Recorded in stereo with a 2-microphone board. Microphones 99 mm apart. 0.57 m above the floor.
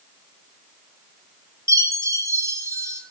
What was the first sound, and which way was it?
A chime, 35° right (ahead or behind).